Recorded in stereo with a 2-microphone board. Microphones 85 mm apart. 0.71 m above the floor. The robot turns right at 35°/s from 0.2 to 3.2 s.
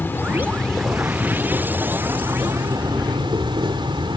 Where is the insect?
155° left, 1.9 m; by 4.2 s 100° right, 1.9 m.